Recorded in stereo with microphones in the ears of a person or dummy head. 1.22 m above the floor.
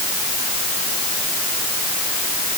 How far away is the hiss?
I don't hear a hiss.